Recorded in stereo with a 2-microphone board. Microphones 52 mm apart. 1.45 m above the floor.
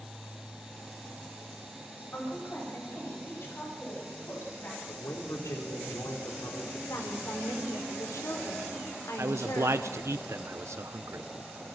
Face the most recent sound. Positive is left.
turn(degrees=-65)  # may be behind; listen again after turning